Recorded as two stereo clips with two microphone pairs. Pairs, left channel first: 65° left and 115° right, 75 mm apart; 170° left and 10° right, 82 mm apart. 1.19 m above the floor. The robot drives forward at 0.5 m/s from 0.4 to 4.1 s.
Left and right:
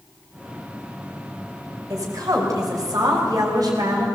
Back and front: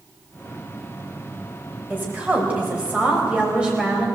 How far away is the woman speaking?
About 5 m.